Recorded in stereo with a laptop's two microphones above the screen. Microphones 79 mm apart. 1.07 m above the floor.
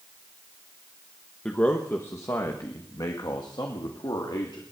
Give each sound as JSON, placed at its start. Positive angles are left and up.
{"t": 1.4, "sound": "a man speaking", "side_deg": 10, "distance_m": 1.1}